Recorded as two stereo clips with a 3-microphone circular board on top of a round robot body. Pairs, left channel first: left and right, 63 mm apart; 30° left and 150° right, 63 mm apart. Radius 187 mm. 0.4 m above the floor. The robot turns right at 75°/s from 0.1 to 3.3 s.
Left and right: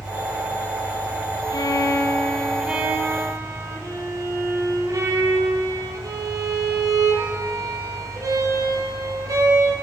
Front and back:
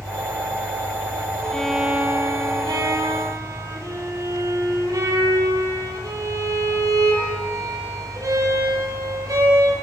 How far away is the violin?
About 5 m.